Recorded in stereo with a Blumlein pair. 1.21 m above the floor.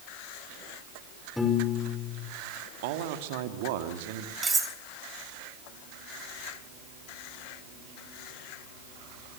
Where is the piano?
5° left, 4.5 m.